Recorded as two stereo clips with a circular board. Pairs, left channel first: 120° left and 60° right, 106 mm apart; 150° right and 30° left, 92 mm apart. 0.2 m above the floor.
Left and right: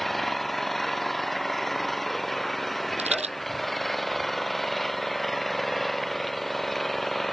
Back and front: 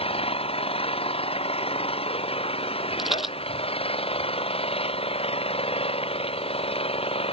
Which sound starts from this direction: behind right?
An engine running, at 0.0 s.